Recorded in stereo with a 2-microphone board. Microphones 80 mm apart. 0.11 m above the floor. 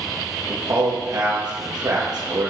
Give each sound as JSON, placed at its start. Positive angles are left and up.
{"t": 0.5, "sound": "a man speaking", "side_deg": -60, "distance_m": 2.5}